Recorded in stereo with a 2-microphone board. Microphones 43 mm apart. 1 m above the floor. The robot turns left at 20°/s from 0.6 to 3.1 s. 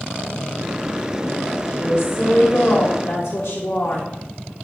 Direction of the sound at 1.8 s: 60° left (ahead or behind).